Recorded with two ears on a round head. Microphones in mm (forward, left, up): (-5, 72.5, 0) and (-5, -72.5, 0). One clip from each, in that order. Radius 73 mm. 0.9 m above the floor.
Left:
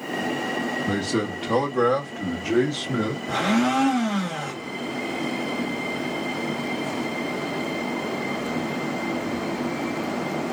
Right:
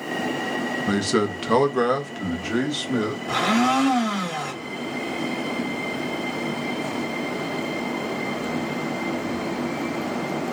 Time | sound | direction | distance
0.9 | a man speaking | 45° right (ahead or behind) | 0.8 m
3.3 | a blender | 85° right | 1.7 m